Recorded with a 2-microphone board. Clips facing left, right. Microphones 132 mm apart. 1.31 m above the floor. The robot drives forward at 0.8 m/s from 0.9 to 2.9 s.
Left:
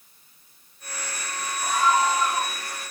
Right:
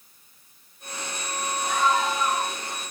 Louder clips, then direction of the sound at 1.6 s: Left 2 dB; 50° left (ahead or behind).